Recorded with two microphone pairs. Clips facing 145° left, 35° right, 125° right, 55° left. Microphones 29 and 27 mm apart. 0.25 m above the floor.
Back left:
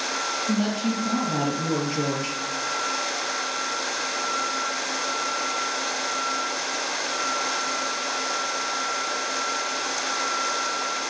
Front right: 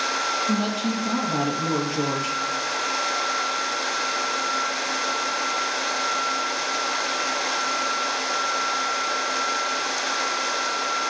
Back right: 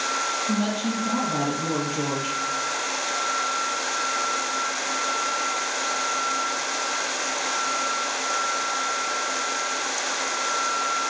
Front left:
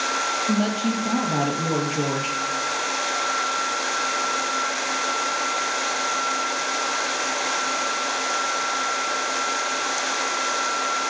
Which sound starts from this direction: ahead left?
A woman speaking, at 0.5 s.